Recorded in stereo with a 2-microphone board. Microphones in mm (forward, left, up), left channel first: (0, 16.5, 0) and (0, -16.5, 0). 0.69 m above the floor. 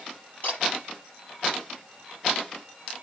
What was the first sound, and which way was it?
A camera shutter, 60° left (ahead or behind).